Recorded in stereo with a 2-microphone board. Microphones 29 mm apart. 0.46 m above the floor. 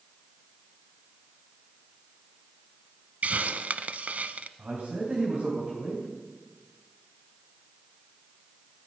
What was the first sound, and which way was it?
A hiss, 60° right (ahead or behind).